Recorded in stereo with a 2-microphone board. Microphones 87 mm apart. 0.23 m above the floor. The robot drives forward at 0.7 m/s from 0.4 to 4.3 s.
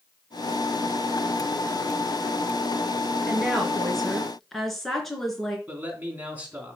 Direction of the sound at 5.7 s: 15° right (ahead or behind).